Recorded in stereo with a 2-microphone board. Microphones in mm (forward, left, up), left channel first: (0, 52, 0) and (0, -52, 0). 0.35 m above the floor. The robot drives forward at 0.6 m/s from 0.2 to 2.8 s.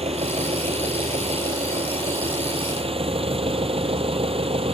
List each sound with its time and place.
0.0 s an engine running: 75° right (ahead or behind); by 4.7 s 65° right (ahead or behind)